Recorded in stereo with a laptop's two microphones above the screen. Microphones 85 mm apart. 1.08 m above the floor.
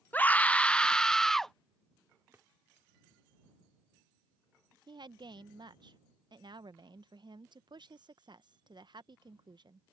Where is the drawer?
30° right (ahead or behind).